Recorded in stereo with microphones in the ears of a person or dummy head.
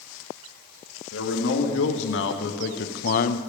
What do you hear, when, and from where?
1.1 s a man speaking: 85° left, 2.0 m; by 3.4 s 45° left (ahead or behind), 0.7 m